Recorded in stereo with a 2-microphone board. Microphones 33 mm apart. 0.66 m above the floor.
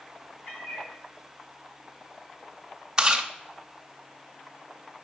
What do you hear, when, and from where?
0.5 s a cat meowing: 80° left, 3 m
3.0 s chewing: 20° right (ahead or behind), 1.0 m